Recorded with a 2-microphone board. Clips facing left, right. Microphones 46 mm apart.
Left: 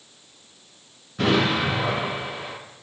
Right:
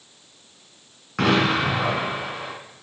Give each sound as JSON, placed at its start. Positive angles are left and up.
{"t": 1.2, "sound": "an explosion", "side_deg": -80, "distance_m": 1.9}